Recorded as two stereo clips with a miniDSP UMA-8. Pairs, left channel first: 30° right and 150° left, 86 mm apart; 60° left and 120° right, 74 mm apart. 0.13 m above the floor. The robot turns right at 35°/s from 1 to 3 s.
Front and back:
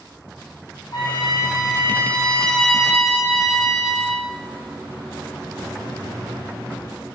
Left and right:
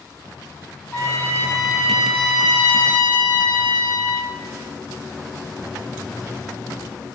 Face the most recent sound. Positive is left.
turn(degrees=70)